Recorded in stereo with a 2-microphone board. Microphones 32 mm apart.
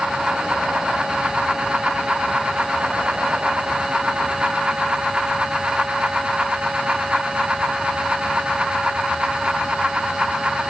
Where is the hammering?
No hammering in this recording.